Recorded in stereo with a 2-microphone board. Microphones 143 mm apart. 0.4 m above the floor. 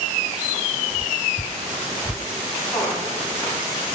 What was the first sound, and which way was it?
Dripping, 5° left (ahead or behind).